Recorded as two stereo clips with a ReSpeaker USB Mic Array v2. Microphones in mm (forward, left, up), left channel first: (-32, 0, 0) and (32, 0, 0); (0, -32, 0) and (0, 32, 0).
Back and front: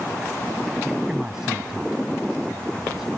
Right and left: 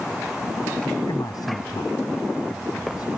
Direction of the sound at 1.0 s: 80° right.